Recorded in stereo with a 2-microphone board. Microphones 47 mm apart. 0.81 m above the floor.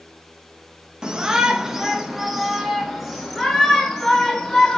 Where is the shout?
15° right (ahead or behind), 1.0 m; by 4.8 s 5° left (ahead or behind), 2.5 m.